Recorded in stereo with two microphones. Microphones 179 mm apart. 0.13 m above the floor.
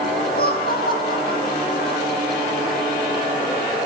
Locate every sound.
0.3 s laughter: 60° left (ahead or behind), 6 m; by 2.0 s 45° left (ahead or behind), 5 m